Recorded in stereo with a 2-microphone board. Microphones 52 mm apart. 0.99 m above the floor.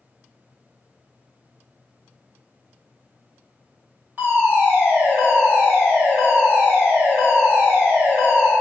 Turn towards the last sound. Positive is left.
turn(degrees=-40)  # may be behind; listen again after turning